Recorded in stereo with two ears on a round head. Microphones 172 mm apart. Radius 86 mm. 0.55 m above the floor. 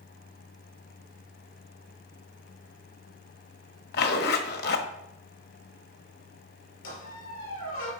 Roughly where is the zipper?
Left.